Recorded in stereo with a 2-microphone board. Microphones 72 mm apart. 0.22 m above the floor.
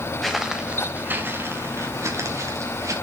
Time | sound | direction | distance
0.2 | footsteps | centre (ahead or behind) | 1.8 m